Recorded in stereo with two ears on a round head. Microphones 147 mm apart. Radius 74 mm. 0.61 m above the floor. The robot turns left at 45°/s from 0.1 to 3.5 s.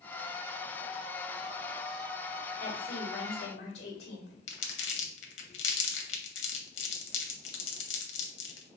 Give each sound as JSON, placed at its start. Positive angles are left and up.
{"t": 2.6, "sound": "a woman speaking", "azimuth_deg": 120, "distance_m": 2.0}
{"t": 4.5, "sound": "crumpling", "side_deg": 75, "distance_m": 1.1}